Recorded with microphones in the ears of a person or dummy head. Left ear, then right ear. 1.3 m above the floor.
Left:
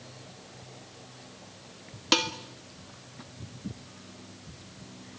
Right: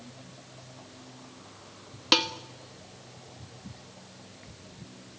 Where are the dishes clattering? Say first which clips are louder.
Right 2 dB; 10° right (ahead or behind), 1.2 m.